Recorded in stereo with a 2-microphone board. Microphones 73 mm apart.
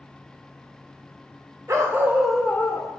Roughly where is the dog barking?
Right.